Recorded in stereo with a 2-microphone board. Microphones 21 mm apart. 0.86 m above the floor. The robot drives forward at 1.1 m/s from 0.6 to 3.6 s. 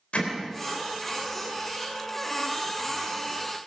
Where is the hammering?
70° left (ahead or behind), 3.5 m.